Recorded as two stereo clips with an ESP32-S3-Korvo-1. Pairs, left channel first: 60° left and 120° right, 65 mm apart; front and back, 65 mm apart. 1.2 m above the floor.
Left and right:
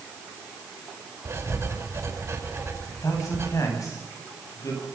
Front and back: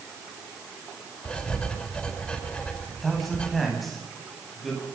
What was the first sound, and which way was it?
Writing, 75° right.